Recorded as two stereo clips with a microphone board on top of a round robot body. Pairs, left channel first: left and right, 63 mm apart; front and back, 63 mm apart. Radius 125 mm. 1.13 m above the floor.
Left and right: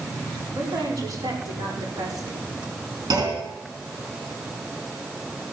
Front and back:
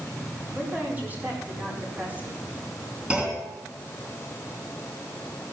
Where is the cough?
I don't hear a cough.